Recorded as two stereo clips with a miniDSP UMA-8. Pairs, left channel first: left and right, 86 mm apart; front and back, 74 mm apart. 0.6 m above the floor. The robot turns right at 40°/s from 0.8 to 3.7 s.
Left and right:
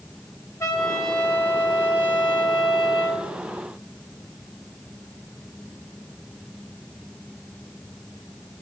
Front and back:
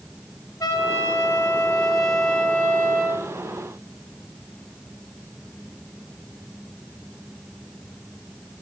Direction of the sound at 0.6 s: 35° left.